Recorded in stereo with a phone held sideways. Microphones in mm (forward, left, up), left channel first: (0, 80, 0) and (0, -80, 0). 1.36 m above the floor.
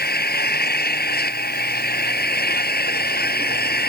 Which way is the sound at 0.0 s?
75° left (ahead or behind).